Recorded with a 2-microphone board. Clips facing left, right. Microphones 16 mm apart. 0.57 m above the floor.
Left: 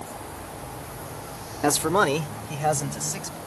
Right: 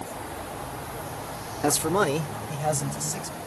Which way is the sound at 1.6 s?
20° left (ahead or behind).